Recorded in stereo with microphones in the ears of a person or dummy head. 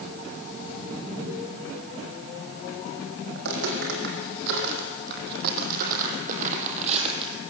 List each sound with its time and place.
3.4 s footsteps: 65° right (ahead or behind), 5 m; by 7.4 s 30° right (ahead or behind), 3 m